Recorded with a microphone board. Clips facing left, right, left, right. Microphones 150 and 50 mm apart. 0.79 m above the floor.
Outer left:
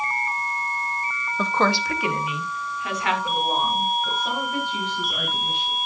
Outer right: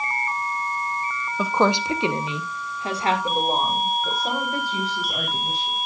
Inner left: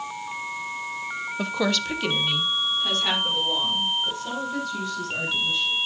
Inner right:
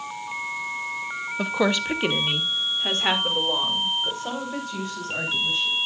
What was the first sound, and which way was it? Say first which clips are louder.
A woman speaking: outer right 2 dB, inner right 3 dB; 5° right (ahead or behind).